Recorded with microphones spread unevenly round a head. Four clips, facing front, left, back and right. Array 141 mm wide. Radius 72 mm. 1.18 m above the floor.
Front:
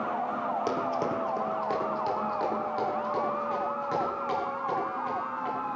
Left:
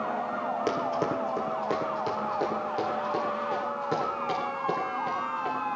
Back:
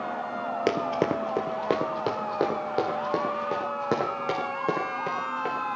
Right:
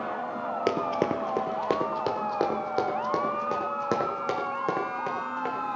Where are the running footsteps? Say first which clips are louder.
Right 4 dB, back 3 dB; 145° right, 1.5 m; by 5.5 s 140° right, 5.5 m.